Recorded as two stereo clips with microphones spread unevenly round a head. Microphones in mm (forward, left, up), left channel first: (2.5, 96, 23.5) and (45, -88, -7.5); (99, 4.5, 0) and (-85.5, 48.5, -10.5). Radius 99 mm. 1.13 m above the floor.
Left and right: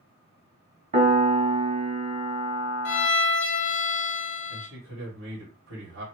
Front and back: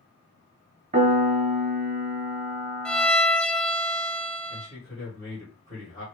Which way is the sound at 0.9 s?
140° right.